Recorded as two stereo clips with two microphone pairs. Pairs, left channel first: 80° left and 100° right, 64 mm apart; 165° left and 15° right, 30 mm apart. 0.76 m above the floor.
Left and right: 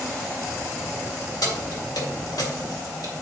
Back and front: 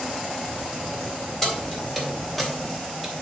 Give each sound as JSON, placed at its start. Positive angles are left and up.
{"t": 1.4, "sound": "keys jangling", "azimuth_deg": 85, "distance_m": 3.0}